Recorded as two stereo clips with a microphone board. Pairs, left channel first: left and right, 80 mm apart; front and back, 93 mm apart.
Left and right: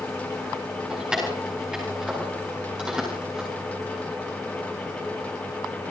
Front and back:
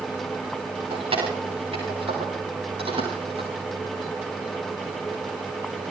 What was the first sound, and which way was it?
Keys jangling, 170° right.